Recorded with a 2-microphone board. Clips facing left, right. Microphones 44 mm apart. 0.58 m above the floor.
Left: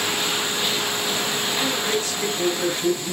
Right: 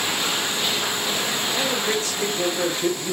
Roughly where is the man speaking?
Right.